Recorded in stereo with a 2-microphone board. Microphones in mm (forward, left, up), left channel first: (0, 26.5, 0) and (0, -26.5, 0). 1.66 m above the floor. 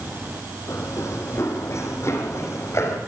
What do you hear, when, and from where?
0.7 s running footsteps: 60° left (ahead or behind), 3 m